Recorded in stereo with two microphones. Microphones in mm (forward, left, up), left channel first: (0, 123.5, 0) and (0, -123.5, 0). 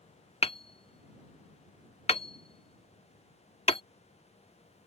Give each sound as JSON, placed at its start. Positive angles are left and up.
{"t": 0.4, "sound": "hammering", "side_deg": 25}